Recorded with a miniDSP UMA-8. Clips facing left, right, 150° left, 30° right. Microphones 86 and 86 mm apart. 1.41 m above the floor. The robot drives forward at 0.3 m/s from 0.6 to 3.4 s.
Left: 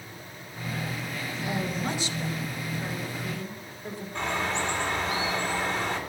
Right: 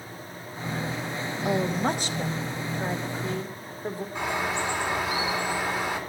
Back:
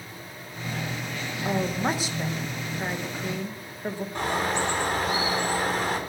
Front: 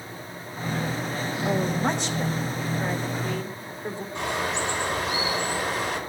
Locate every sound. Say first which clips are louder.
1.4 s a woman speaking: right 6 dB, front 1 dB; 120° right, 1.7 m; by 4.0 s 135° right, 2 m
4.2 s a bird: even, back 1 dB; 170° right, 4 m